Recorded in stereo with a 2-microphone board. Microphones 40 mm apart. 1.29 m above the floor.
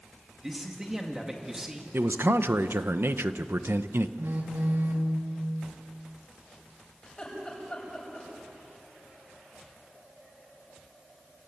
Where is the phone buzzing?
70° right (ahead or behind), 2 m.